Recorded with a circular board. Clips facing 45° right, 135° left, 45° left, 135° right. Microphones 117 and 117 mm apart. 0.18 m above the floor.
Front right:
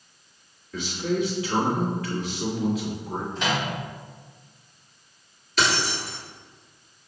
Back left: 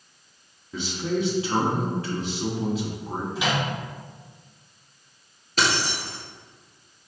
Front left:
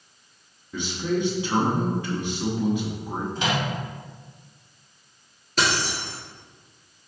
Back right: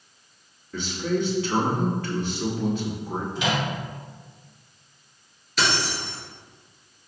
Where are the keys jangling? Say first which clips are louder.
Even, front left 1 dB; 90° left, 1.9 m.